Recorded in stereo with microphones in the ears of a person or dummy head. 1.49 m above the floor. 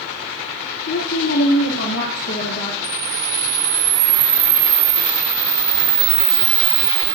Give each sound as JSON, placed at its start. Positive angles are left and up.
{"t": 0.9, "sound": "a woman speaking", "side_deg": 70, "distance_m": 1.4}
{"t": 2.8, "sound": "a camera shutter", "side_deg": -55, "distance_m": 1.7}